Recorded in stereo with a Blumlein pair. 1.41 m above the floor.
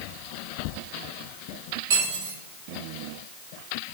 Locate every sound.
1.9 s cutlery clinking: 55° right, 1.8 m